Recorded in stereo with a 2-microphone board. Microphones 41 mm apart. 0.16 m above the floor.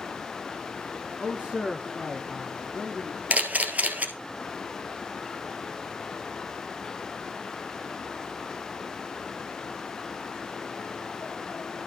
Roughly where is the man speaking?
Right.